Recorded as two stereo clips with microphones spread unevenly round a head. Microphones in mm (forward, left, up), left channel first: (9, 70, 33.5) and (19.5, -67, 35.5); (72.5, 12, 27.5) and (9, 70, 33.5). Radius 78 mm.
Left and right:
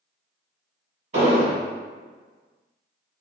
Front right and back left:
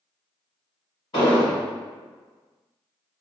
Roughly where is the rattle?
I don't hear a rattle.